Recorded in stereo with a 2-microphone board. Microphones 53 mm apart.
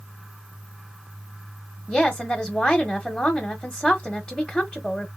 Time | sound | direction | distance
1.9 | a woman speaking | 15° left (ahead or behind) | 0.8 m